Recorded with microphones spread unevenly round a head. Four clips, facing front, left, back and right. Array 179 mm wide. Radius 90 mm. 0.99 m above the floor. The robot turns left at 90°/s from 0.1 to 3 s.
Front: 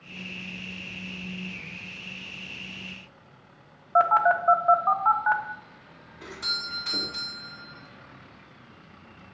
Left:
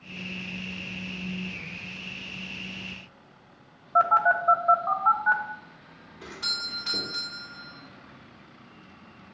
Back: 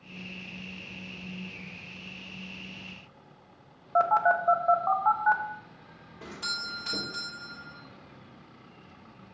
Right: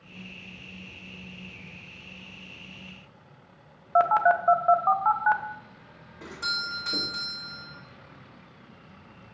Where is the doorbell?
130° right, 1.9 m.